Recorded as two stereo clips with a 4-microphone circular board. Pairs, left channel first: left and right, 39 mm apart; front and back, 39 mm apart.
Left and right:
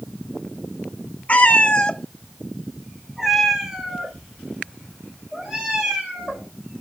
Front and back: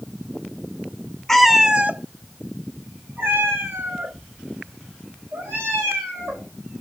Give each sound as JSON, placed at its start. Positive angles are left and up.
{"t": 1.3, "sound": "a cat meowing", "azimuth_deg": 75, "distance_m": 0.6}